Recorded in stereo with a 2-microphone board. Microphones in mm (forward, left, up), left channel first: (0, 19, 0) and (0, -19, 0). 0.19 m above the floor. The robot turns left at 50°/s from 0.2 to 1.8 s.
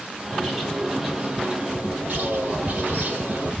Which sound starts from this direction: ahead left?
A bird, at 0.3 s.